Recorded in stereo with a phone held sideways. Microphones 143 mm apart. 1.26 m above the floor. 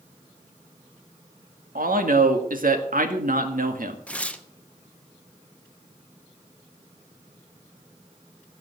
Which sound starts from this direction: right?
A man speaking, at 1.8 s.